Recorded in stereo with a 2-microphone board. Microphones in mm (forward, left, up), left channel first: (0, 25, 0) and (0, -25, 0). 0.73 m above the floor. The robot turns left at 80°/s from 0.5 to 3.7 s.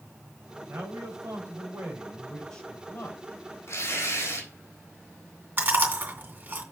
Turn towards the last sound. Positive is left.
turn(degrees=-35)  # may be behind; listen again after turning